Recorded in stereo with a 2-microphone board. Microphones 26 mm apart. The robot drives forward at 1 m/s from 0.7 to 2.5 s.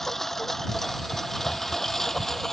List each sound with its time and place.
0.0 s a lawn mower: 15° left (ahead or behind)